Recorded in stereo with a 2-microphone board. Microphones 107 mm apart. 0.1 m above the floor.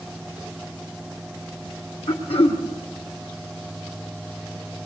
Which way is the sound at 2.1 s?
70° left (ahead or behind).